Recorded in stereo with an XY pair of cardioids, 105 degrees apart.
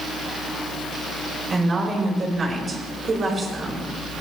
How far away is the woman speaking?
About 4.5 m.